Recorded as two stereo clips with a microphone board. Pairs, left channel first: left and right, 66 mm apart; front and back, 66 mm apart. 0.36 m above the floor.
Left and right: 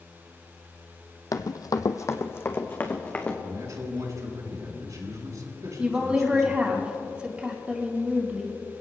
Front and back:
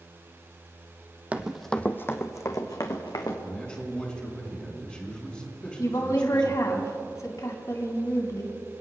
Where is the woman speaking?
20° right, 3.5 m.